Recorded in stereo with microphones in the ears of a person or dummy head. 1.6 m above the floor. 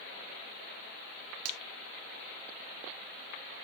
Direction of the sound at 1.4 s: 70° right (ahead or behind).